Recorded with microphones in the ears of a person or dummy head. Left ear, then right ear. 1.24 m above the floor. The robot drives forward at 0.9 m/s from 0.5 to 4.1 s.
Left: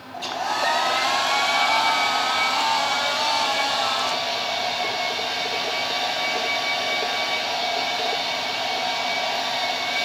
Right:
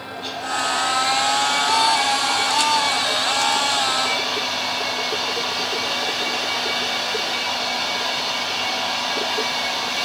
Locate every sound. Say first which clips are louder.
0.1 s a hair dryer: left 1 dB; 55° left (ahead or behind), 1.6 m; by 10.1 s 20° left (ahead or behind), 4.5 m